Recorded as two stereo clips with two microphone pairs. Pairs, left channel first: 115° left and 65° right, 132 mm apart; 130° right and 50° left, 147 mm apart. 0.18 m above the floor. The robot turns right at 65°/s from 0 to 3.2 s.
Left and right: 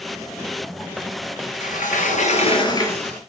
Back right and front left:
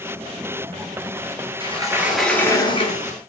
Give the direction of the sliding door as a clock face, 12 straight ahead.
9 o'clock.